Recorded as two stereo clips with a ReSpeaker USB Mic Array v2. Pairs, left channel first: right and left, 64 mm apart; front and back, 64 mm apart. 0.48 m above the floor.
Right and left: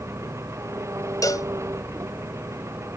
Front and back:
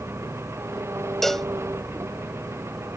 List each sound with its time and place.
0.0 s an engine running: 130° left
1.2 s a cowbell: 85° right